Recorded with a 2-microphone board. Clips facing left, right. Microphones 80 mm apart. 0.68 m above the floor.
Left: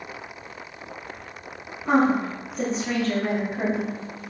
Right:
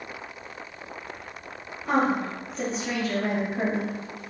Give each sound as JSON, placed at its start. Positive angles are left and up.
{"t": 1.9, "sound": "a woman speaking", "side_deg": 25, "distance_m": 1.4}